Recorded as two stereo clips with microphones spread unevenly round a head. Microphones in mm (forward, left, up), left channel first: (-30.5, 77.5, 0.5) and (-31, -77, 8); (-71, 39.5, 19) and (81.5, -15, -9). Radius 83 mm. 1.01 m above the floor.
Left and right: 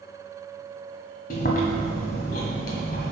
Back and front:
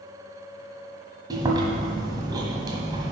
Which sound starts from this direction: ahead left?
Chewing, at 1.3 s.